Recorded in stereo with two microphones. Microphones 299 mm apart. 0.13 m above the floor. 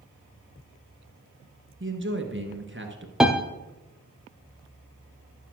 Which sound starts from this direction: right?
A man speaking, at 1.8 s.